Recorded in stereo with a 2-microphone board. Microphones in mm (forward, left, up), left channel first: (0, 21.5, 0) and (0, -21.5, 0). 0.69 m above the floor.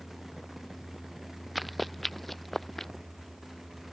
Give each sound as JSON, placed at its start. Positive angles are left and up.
{"t": 1.6, "sound": "running footsteps", "side_deg": 0}